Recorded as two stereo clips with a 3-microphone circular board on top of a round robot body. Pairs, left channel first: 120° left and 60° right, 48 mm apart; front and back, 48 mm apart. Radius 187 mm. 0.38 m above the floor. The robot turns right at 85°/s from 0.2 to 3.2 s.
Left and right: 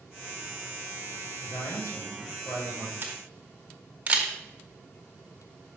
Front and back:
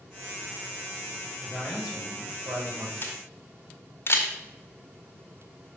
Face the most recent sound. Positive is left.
turn(degrees=-10)